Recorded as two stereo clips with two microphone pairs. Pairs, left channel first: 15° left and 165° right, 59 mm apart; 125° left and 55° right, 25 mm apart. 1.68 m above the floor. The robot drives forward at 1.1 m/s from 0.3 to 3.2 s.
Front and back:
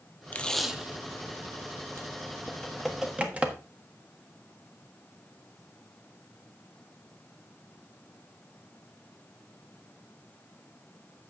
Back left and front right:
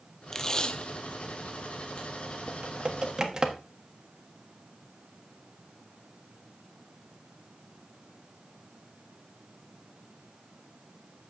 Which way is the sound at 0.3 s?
60° left.